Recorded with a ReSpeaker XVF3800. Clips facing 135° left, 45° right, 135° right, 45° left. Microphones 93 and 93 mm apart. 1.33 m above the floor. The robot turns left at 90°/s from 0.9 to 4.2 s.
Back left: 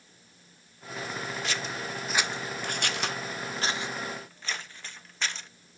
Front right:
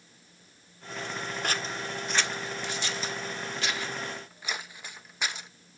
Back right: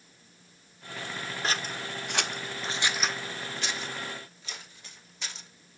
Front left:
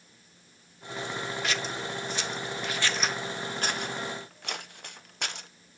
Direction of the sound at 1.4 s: 80° right.